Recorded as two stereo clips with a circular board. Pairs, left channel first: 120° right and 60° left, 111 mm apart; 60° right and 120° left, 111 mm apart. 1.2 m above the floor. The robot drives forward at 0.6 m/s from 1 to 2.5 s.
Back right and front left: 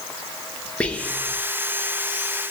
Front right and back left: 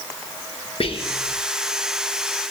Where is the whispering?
40° right, 0.7 m; by 1.4 s 60° right, 0.6 m.